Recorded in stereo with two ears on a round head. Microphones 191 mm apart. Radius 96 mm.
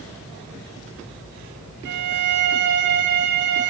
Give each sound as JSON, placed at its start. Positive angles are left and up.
{"t": 1.9, "sound": "a violin", "side_deg": -60, "distance_m": 1.4}